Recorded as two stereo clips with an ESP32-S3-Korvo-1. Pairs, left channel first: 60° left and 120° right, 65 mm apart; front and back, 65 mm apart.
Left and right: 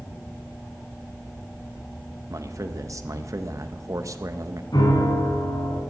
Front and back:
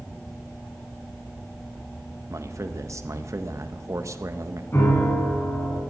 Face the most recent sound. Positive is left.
turn(degrees=55)